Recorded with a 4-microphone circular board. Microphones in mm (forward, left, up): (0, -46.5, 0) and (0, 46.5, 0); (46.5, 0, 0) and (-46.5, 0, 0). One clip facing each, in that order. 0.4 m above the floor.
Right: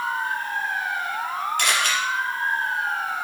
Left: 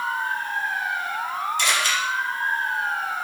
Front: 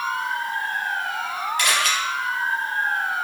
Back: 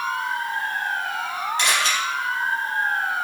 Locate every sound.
1.6 s a camera shutter: 120° right, 1.4 m